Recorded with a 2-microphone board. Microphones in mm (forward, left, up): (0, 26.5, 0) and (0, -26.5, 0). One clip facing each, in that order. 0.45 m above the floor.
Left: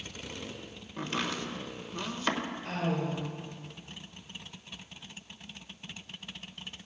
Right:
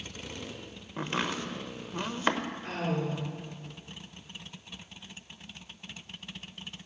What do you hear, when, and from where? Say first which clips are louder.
1.0 s chopping: right 2 dB; 25° right (ahead or behind), 0.9 m
2.6 s a woman speaking: even; 35° right (ahead or behind), 6 m